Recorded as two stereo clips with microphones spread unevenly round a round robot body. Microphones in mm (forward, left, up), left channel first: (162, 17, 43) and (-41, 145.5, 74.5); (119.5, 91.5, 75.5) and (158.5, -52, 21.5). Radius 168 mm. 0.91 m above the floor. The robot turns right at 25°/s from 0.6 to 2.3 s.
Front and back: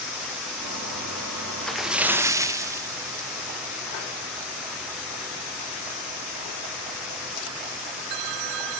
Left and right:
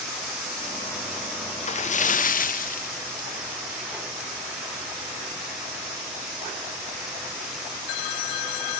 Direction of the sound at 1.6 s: 50° left.